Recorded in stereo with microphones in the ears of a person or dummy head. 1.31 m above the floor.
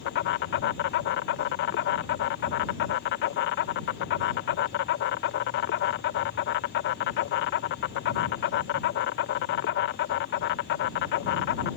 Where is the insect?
55° left (ahead or behind).